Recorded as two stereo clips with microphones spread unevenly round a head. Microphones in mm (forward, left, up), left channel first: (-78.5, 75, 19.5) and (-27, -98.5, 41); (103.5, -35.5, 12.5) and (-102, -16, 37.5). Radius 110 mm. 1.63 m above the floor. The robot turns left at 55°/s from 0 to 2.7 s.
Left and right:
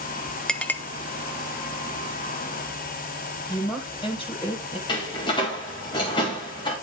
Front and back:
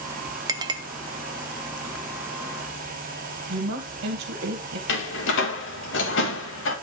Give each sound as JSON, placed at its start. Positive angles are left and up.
{"t": 0.5, "sound": "a clink", "azimuth_deg": -155, "distance_m": 0.5}
{"t": 3.5, "sound": "a woman speaking", "azimuth_deg": 170, "distance_m": 1.6}
{"t": 4.9, "sound": "a door slam", "azimuth_deg": 35, "distance_m": 1.8}